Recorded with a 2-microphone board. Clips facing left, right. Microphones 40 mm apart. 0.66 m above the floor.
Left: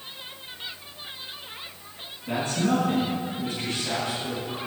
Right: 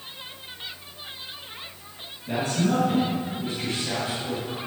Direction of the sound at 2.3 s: 25° left (ahead or behind).